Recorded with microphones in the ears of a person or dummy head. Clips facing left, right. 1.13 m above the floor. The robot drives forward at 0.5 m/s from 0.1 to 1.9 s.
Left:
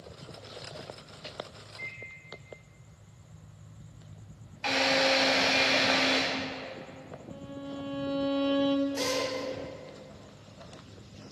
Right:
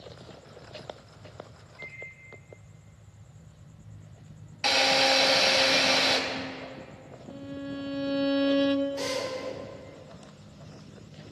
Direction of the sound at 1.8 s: 55° left (ahead or behind).